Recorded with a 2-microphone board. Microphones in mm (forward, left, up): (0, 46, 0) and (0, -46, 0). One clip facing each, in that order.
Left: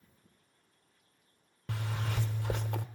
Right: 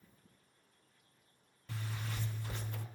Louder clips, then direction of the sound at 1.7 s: Left 6 dB; 75° left (ahead or behind).